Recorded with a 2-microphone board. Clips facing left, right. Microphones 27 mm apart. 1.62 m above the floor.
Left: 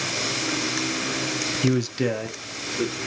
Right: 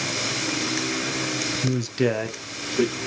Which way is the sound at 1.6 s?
45° left (ahead or behind).